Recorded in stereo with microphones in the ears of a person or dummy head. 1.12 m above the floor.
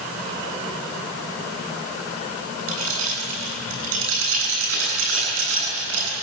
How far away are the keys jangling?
About 8.5 m.